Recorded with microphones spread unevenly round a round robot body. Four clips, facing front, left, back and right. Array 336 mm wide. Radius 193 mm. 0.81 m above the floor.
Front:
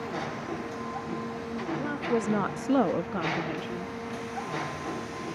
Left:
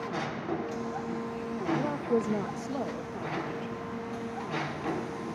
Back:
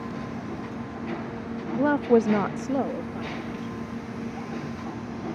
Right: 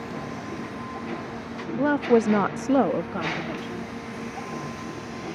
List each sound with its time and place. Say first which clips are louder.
1.7 s a woman speaking: right 10 dB, back 10 dB; 150° right; by 3.9 s 40° right